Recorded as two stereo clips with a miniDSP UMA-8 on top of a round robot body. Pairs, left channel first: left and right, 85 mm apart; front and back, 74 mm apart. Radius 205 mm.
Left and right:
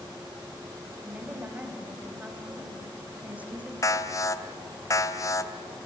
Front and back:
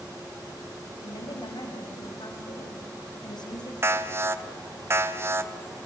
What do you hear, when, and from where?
1.0 s a woman speaking: 15° right, 4.5 m
3.8 s an alarm: 135° left, 1.4 m